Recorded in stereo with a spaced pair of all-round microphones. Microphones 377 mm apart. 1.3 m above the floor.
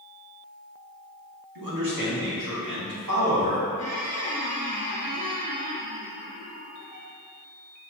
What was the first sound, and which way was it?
A man speaking, 85° right.